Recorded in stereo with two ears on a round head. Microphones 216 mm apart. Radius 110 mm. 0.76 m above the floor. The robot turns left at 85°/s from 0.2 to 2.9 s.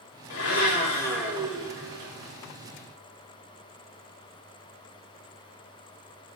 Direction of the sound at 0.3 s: 80° left.